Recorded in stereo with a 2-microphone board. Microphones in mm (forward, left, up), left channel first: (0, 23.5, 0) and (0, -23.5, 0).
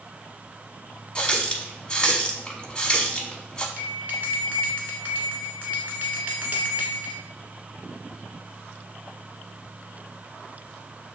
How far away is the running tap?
About 0.7 m.